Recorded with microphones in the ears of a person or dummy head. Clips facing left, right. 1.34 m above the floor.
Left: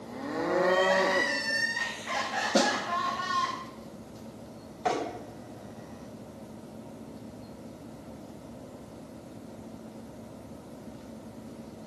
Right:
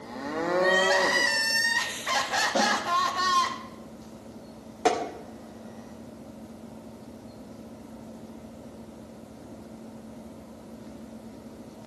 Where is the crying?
80° right, 1.5 m.